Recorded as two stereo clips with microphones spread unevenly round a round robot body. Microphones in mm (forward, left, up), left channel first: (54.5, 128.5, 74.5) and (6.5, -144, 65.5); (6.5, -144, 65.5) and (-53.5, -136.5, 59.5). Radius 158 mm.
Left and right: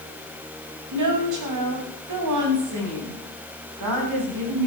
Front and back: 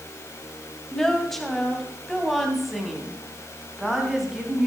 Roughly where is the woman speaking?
Right.